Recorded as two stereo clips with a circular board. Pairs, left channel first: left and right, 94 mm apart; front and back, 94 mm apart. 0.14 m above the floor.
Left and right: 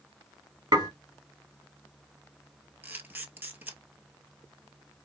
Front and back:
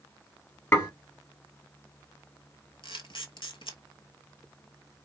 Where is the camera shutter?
20° right, 0.8 m.